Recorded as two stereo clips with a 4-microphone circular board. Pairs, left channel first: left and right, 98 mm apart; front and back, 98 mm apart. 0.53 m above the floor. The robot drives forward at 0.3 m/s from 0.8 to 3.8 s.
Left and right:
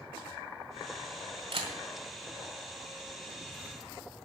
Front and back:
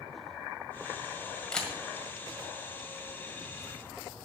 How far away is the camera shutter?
About 1.9 m.